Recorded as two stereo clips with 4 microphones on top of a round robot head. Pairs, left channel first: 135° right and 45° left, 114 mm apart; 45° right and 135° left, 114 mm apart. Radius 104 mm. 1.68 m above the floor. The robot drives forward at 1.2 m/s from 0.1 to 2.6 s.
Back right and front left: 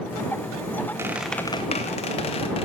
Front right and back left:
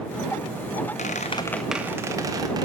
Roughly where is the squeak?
Ahead.